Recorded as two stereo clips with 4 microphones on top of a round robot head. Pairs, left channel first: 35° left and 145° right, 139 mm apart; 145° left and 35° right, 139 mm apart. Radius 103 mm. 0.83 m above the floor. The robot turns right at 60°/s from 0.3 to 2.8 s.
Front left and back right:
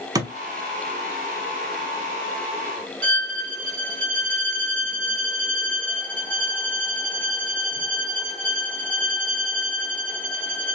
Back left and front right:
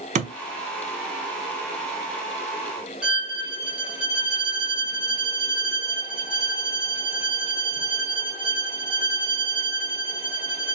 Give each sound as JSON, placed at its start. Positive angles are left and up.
{"t": 0.1, "sound": "a thud", "azimuth_deg": -80, "distance_m": 0.9}
{"t": 3.0, "sound": "a violin", "azimuth_deg": -120, "distance_m": 0.8}